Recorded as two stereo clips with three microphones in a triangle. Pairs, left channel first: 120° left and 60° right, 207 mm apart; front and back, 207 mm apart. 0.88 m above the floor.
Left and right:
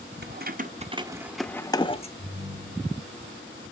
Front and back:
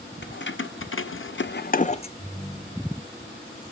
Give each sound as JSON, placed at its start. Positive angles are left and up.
{"t": 0.2, "sound": "keys jangling", "azimuth_deg": -30, "distance_m": 0.7}
{"t": 2.2, "sound": "a ringtone", "azimuth_deg": -85, "distance_m": 5.0}